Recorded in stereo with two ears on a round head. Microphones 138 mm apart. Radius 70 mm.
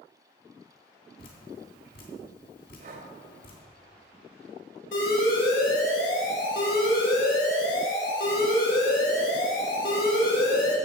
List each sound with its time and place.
1.2 s dripping: 65° left (ahead or behind), 3 m
2.8 s breathing: 65° right (ahead or behind), 2 m
4.9 s an alarm: 80° left, 4 m